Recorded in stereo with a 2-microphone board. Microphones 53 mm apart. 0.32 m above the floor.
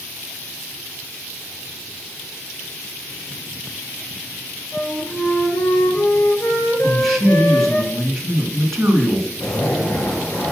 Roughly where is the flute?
Left.